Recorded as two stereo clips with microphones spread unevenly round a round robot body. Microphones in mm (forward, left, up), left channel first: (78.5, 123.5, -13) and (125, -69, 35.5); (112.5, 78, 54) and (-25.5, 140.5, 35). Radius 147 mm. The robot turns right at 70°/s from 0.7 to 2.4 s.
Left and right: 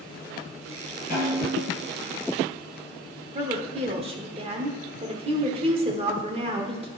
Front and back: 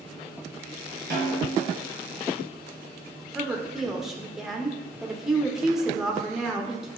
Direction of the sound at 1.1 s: 170° left.